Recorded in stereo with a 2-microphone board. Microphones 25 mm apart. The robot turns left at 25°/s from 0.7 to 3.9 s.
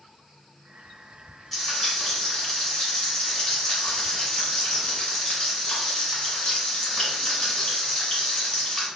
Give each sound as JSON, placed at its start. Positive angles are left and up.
{"t": 1.5, "sound": "frying", "azimuth_deg": 175, "distance_m": 1.5}